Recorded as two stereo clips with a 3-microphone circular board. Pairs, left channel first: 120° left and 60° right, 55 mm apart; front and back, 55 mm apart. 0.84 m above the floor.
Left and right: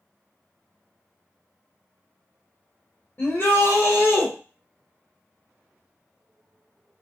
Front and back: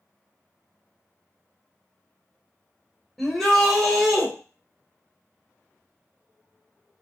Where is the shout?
90° left, 1.1 m.